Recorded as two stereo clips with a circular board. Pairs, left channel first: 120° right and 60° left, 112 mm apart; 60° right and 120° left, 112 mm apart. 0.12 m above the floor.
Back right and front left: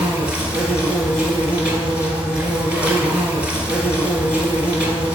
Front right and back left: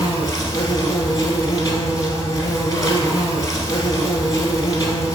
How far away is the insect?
About 0.9 m.